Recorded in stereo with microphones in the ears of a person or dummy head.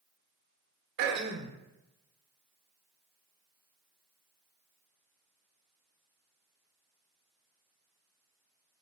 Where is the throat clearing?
60° right (ahead or behind), 1.3 m.